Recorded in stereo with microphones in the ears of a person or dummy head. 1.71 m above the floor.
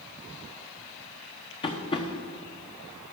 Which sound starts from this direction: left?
Tapping, at 1.6 s.